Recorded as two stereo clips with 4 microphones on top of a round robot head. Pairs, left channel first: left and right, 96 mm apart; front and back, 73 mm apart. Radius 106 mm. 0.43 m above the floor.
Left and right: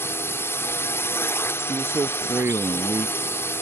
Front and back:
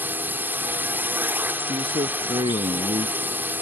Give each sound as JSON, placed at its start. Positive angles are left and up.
{"t": 0.0, "sound": "a drone", "azimuth_deg": 135}
{"t": 1.7, "sound": "a man speaking", "azimuth_deg": -155}